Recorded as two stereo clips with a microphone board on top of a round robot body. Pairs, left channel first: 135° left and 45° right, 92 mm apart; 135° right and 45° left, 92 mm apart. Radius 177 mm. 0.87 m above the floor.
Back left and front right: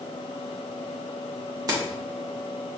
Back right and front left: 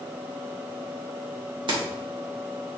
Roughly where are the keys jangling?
Ahead.